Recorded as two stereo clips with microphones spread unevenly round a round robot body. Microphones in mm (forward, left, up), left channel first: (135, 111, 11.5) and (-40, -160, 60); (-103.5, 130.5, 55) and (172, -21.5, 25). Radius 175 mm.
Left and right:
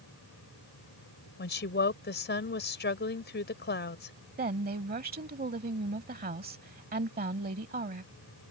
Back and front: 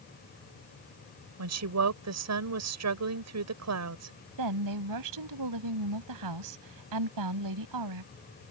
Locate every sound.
1.4 s a woman speaking: straight ahead
4.4 s a woman speaking: 60° right